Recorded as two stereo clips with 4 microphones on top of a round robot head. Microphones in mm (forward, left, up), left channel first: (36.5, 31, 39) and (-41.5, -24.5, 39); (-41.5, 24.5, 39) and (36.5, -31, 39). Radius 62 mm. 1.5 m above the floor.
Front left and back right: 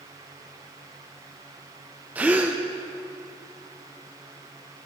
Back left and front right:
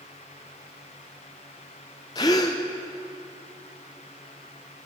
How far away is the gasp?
About 0.5 m.